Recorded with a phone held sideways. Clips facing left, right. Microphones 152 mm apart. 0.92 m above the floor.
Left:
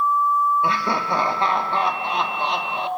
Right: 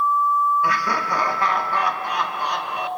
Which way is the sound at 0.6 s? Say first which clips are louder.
Left 1 dB; 25° left (ahead or behind).